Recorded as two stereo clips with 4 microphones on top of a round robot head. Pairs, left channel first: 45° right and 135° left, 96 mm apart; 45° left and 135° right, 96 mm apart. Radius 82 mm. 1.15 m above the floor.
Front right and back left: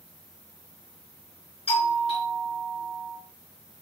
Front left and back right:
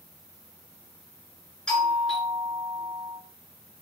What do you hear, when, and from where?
1.7 s a doorbell: 40° right, 4.5 m